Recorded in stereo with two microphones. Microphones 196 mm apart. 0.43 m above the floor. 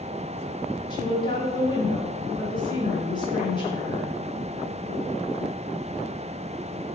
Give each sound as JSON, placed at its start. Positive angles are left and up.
{"t": 0.9, "sound": "a woman speaking", "side_deg": 25, "distance_m": 1.0}